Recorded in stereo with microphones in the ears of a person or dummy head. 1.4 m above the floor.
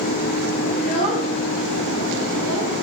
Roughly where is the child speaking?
Right.